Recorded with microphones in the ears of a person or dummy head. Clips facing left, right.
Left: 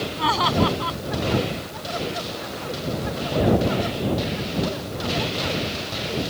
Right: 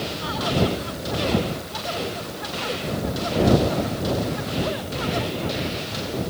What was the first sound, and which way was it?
Laughter, 80° left.